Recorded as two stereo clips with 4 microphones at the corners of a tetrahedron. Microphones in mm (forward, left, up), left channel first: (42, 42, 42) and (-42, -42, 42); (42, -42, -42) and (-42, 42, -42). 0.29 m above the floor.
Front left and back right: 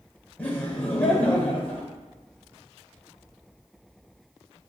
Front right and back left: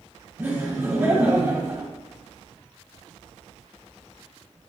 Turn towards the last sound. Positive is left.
turn(degrees=105)